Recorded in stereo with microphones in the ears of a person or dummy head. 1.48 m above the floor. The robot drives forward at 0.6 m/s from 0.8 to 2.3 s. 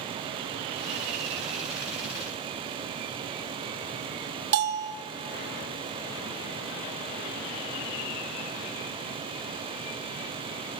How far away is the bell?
About 1.4 m.